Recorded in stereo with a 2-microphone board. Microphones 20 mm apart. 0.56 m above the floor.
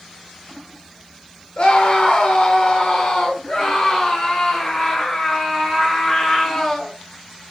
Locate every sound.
1.6 s a scream: 60° left (ahead or behind), 1.9 m; by 6.9 s 25° left (ahead or behind), 3.5 m